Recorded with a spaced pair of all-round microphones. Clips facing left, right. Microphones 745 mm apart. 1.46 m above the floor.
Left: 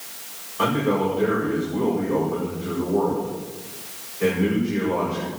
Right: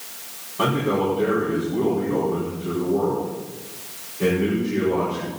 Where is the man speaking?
60° right (ahead or behind), 6 m.